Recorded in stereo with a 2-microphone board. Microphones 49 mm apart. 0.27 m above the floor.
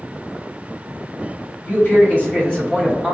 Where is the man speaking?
35° left (ahead or behind), 1.5 m; by 3.1 s 10° left (ahead or behind), 1.5 m.